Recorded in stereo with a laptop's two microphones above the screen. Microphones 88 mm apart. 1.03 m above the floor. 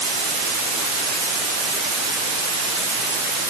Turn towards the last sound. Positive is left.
No sound to turn to.